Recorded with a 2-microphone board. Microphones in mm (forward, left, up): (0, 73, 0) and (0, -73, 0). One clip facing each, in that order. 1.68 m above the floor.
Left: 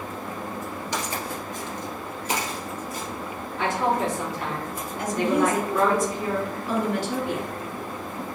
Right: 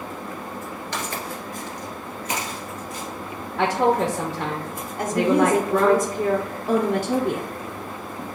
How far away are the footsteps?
About 1.7 m.